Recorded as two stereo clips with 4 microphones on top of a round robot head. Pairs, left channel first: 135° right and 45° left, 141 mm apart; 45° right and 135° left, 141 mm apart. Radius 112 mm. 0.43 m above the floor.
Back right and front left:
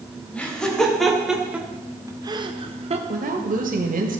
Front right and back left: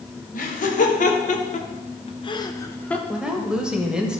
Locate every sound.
0.3 s laughter: 50° right, 2.5 m; by 3.0 s 35° left, 1.3 m
3.1 s a woman speaking: 50° left, 2 m